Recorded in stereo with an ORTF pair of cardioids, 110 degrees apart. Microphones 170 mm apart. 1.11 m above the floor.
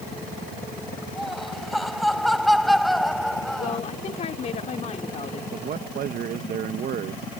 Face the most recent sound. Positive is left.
turn(degrees=-55)